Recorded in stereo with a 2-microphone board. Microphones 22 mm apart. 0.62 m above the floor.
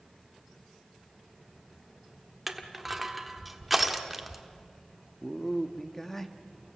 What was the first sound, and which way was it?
Crushing, 5° right (ahead or behind).